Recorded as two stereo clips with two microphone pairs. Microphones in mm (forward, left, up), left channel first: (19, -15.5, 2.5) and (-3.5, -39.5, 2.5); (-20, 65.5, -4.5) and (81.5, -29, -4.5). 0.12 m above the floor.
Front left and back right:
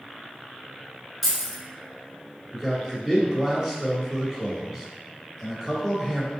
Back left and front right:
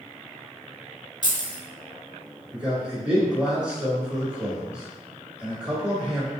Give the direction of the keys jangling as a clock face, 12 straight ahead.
7 o'clock.